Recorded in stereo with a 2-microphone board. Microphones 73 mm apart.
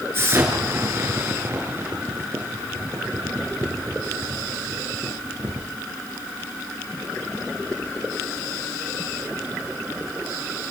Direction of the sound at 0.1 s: 35° right (ahead or behind).